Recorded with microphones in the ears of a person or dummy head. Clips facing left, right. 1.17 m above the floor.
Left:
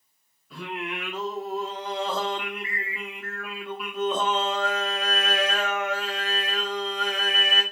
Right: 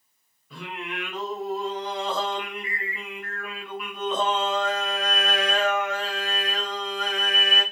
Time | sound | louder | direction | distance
0.5 | singing | left 2 dB | 5° left (ahead or behind) | 0.9 m